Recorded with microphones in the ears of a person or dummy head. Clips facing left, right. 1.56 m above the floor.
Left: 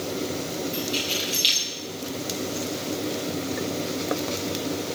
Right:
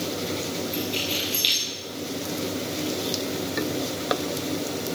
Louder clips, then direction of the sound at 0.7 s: Even; centre (ahead or behind).